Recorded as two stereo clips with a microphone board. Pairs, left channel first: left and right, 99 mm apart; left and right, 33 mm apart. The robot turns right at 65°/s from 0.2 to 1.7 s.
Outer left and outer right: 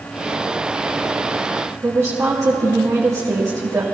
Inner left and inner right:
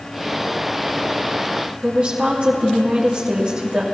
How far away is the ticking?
No ticking in this recording.